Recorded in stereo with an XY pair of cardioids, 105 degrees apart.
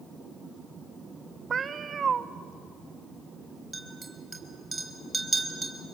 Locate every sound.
1.5 s a cat meowing: 45° right, 0.8 m
3.7 s a clink: 25° right, 4 m